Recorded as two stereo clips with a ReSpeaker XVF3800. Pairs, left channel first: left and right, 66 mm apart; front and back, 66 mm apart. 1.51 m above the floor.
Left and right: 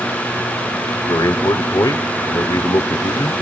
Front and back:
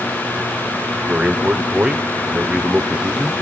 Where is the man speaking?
105° left, 0.7 m.